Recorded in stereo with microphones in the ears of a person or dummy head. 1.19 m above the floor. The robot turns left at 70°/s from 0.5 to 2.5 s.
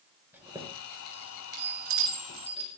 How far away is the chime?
About 5 m.